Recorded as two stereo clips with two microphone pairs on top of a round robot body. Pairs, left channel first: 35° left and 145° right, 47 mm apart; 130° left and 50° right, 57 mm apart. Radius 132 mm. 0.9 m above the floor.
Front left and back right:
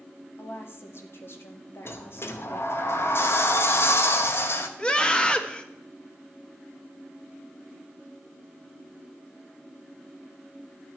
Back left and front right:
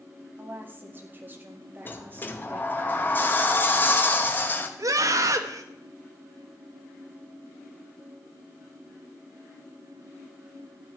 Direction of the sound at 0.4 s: 5° left.